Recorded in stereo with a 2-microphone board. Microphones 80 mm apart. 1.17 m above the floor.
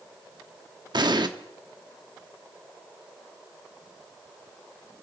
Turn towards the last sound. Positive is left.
turn(degrees=-60)  # may be behind; listen again after turning